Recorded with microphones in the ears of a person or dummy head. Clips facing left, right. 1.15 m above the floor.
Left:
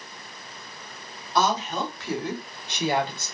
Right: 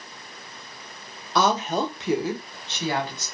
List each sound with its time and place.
1.4 s a woman speaking: 55° right (ahead or behind), 0.6 m; by 3.2 s 25° left (ahead or behind), 0.9 m